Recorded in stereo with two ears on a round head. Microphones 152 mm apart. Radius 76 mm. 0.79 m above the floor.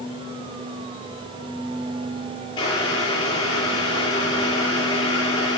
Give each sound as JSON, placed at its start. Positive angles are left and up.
{"t": 2.6, "sound": "boiling", "side_deg": 25, "distance_m": 6.0}